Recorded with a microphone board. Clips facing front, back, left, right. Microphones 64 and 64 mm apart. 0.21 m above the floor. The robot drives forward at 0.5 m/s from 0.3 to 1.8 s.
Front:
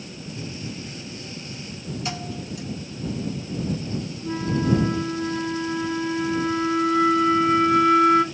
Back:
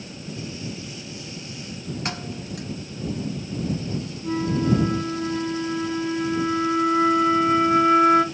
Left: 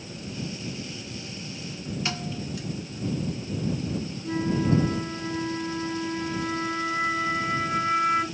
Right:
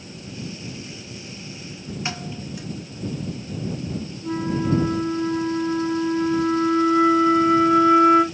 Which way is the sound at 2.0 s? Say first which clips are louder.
Front 2 dB, right 2 dB; 155° right.